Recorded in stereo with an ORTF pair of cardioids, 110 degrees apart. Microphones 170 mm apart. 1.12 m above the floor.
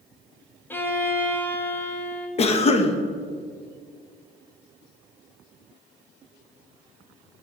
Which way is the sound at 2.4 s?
40° left.